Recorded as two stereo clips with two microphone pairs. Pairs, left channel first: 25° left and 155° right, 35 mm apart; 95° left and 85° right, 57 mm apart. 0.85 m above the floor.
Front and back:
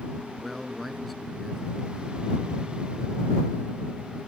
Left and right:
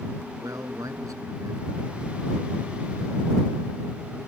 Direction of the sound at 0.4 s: 60° right.